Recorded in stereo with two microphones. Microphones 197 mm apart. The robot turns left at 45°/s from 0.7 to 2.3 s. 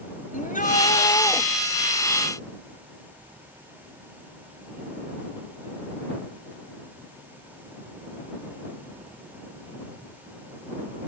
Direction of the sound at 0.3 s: 45° left.